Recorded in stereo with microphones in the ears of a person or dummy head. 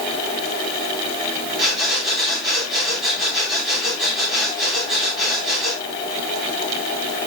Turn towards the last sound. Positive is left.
turn(degrees=0)  # may be behind; listen again after turning